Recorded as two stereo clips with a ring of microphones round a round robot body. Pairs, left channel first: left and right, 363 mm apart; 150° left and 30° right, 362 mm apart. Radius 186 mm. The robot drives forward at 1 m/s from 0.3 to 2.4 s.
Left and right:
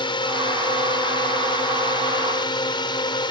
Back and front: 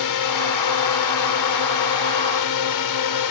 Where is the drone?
165° left.